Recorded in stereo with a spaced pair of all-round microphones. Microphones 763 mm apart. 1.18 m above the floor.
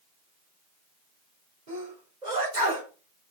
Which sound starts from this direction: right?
A sneeze, at 1.7 s.